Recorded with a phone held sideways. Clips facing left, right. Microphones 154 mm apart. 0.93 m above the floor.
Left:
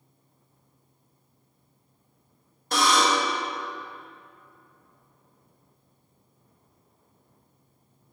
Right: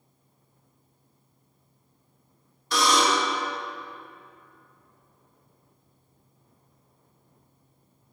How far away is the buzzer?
About 1.5 m.